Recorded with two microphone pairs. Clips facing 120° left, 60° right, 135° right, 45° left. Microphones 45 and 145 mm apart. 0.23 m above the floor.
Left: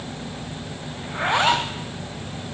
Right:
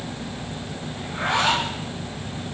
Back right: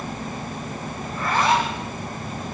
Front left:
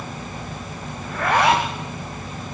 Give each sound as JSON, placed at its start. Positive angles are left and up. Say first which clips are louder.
{"t": 1.0, "sound": "a zipper", "louder": "left 2 dB, front left 4 dB", "azimuth_deg": 60, "distance_m": 5.5}